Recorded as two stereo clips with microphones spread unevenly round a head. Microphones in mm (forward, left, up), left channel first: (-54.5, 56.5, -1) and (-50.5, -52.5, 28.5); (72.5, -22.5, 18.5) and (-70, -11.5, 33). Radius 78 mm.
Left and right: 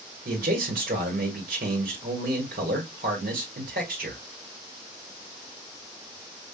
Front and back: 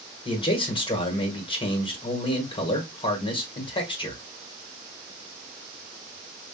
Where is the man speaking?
60° right, 1.6 m.